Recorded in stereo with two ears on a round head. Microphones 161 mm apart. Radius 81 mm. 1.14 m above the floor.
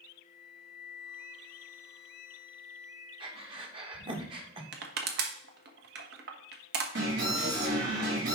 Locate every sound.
0.2 s a flute: 15° right (ahead or behind), 1.6 m
3.2 s breathing: 30° right (ahead or behind), 1.4 m
4.7 s crushing: 60° right (ahead or behind), 1.5 m
7.0 s an alarm: 70° right (ahead or behind), 4.5 m